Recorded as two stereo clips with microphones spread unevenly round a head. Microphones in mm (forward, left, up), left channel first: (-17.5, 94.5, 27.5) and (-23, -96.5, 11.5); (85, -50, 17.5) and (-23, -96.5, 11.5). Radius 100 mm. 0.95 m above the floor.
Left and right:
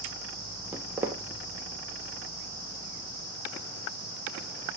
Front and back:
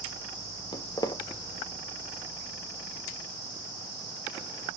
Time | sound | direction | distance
0.7 | footsteps | 10° right | 1.2 m